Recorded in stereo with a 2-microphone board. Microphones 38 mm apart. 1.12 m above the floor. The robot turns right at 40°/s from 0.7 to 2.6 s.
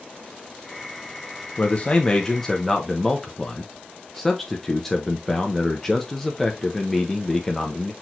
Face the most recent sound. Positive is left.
turn(degrees=170)